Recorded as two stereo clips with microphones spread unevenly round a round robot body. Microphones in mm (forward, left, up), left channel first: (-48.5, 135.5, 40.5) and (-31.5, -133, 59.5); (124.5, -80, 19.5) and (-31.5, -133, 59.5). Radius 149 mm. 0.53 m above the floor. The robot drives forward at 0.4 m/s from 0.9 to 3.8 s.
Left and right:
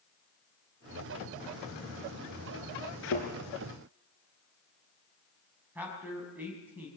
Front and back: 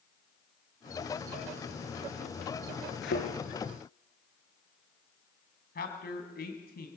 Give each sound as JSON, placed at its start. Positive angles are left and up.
{"t": 3.0, "sound": "a thud", "azimuth_deg": 45, "distance_m": 3.5}
{"t": 5.8, "sound": "a man speaking", "azimuth_deg": 0, "distance_m": 4.0}